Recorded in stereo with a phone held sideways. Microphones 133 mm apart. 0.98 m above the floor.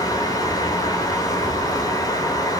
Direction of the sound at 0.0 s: 30° left (ahead or behind).